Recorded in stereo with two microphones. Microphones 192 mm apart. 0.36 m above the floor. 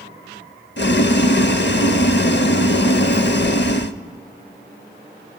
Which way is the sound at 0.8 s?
65° left (ahead or behind).